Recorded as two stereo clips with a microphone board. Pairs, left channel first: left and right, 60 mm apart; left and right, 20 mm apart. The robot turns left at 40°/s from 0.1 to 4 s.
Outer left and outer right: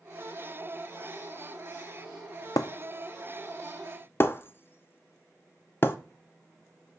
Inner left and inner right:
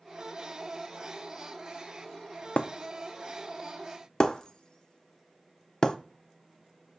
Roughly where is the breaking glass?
Left.